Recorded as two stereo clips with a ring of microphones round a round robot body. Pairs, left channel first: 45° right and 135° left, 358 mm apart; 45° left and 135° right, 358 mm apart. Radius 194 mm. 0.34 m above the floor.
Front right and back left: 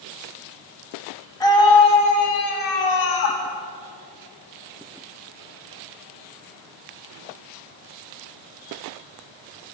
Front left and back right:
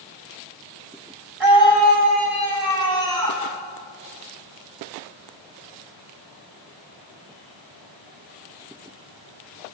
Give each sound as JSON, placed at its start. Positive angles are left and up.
{"t": 1.4, "sound": "a scream", "azimuth_deg": -125, "distance_m": 4.5}